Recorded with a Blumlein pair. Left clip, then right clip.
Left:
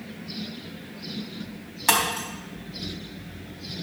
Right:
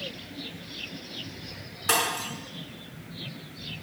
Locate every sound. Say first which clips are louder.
1.9 s breaking glass: left 3 dB; 45° left, 4 m